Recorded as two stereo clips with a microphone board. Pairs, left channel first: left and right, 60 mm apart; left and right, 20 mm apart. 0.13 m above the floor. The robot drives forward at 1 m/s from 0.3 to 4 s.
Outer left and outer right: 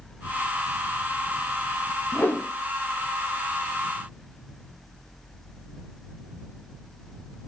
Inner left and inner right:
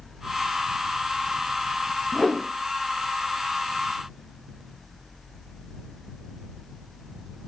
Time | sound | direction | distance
2.1 | a whoosh | 35° left (ahead or behind) | 2.5 m